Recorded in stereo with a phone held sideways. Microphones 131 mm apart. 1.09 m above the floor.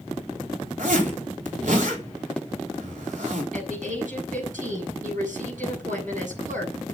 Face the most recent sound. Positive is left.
turn(degrees=-85)